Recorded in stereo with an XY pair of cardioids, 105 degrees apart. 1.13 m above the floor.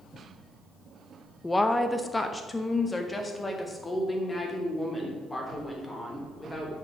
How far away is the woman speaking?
About 0.9 m.